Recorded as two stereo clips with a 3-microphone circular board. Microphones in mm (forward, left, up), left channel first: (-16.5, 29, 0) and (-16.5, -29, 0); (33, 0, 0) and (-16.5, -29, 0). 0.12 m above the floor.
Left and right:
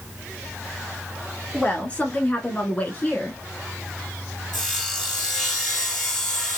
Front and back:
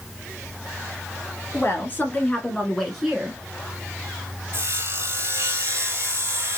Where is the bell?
No bell in this recording.